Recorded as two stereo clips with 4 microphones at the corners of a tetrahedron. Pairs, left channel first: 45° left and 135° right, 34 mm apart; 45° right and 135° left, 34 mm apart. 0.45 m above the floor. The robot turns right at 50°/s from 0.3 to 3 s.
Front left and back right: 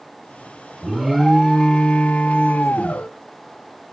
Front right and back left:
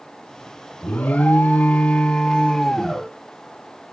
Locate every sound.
0.8 s an alarm: 65° right, 0.9 m; by 3.1 s 45° left, 0.9 m